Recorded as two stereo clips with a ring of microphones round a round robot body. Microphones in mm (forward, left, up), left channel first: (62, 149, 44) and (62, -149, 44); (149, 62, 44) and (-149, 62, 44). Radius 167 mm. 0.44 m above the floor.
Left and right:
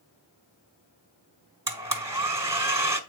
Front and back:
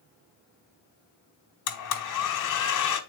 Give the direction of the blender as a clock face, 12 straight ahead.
12 o'clock.